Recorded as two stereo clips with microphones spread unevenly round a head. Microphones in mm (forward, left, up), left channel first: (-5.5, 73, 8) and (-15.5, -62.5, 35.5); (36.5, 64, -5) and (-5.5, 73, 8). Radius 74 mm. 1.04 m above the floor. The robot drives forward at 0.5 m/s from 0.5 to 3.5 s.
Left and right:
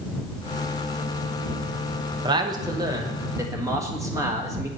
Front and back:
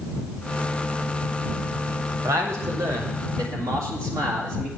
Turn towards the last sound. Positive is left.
turn(degrees=-165)